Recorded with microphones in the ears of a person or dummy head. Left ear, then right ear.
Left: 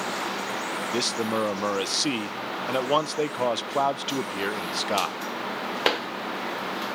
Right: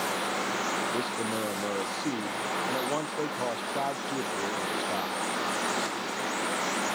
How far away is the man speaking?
About 0.6 m.